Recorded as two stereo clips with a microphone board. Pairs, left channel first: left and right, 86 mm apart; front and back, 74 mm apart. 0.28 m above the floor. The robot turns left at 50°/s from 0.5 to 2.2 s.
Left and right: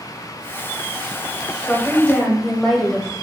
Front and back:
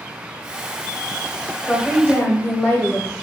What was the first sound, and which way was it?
A woman speaking, 45° left.